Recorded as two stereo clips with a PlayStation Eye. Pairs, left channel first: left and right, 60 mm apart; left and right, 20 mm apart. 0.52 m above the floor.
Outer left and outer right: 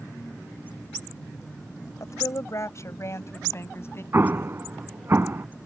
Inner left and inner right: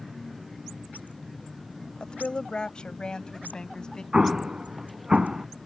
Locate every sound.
2.0 s a woman speaking: 60° left (ahead or behind); by 4.0 s 45° left (ahead or behind)
4.1 s an explosion: 45° right (ahead or behind)